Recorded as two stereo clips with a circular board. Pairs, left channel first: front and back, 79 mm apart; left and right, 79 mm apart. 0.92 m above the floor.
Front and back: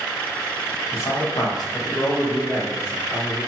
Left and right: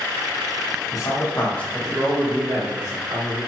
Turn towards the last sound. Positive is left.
turn(degrees=-55)